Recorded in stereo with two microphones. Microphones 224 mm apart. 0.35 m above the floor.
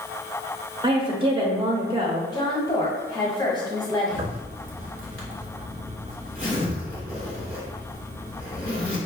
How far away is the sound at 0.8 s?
About 0.9 m.